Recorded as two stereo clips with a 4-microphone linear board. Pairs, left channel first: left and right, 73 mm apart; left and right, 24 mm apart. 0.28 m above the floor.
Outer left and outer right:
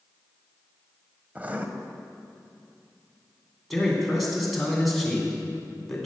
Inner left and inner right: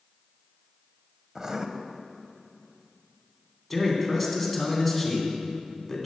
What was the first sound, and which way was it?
Writing, 25° right (ahead or behind).